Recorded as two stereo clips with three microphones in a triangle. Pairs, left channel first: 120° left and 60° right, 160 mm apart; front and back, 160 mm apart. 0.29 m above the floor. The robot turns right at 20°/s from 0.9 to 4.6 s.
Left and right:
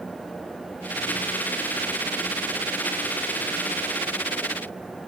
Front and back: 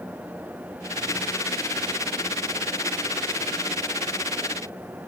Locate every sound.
Only background noise.